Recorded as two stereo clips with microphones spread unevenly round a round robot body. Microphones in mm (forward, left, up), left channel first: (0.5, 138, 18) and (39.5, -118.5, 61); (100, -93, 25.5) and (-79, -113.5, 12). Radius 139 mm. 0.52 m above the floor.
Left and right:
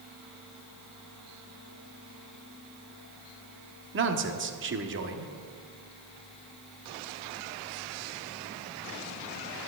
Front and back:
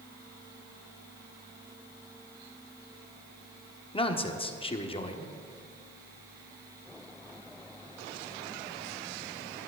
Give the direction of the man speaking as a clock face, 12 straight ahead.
2 o'clock.